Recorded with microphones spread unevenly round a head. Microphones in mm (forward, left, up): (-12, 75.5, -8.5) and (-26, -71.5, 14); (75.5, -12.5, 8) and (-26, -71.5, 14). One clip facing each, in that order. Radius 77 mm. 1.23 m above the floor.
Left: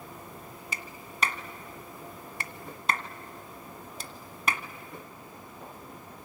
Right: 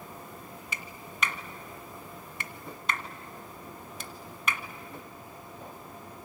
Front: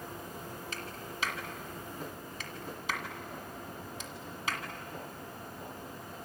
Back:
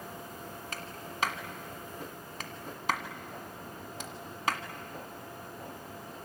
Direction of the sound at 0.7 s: 145° left.